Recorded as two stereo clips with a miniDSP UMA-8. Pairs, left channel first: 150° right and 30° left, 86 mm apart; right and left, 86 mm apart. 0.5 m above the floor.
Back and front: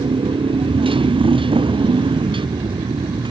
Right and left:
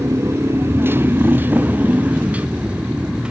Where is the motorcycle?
30° left; by 3.3 s 10° left.